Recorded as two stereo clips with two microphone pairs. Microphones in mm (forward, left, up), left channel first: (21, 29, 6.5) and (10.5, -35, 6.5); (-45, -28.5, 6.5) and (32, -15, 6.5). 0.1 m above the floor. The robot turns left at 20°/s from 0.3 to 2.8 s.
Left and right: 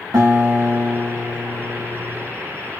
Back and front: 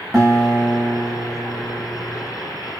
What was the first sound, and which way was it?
A guitar, 75° right.